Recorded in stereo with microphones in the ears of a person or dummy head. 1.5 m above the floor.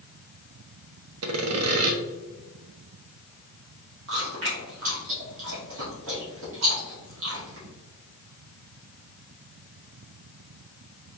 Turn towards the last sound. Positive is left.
turn(degrees=-70)  # may be behind; listen again after turning